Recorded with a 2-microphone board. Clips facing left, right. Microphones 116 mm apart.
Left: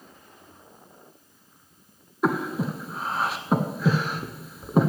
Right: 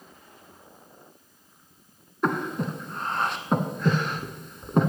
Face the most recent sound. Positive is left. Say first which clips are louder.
# left 2 dB
turn(degrees=5)  # may be behind; listen again after turning